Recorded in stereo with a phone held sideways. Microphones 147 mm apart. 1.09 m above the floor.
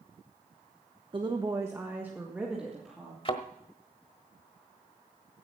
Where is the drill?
I don't hear a drill.